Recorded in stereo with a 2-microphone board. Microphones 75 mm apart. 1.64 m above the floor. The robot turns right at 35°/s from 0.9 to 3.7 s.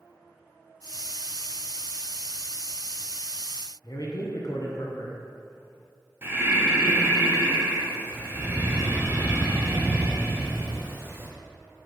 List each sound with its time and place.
3.8 s a man speaking: 50° left (ahead or behind), 0.7 m
6.2 s breathing: 30° right (ahead or behind), 1.0 m